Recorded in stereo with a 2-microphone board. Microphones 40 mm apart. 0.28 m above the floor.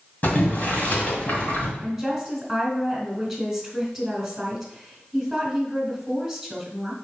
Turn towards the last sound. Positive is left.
turn(degrees=0)  # may be behind; listen again after turning